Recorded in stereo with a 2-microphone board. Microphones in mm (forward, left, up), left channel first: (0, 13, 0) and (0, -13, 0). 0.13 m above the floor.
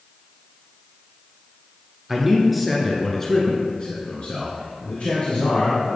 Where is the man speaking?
10° right (ahead or behind), 2 m; by 6.0 s 60° left (ahead or behind), 3 m.